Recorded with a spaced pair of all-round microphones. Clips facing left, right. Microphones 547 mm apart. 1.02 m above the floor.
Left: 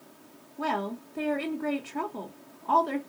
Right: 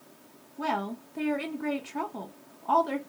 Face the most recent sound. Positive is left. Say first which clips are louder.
# left 1 dB
turn(degrees=-5)  # may be behind; listen again after turning